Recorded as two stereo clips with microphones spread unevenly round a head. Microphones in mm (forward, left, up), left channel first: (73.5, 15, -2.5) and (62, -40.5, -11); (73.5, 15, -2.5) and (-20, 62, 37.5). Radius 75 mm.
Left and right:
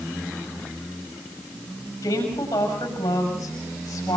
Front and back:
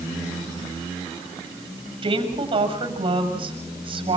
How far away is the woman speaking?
About 7 m.